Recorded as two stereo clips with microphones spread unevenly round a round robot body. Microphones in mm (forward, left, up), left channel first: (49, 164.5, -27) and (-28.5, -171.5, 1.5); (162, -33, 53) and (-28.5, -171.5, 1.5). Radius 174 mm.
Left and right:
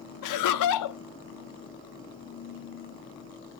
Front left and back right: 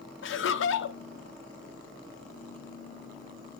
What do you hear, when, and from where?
0.2 s laughter: 80° left, 0.9 m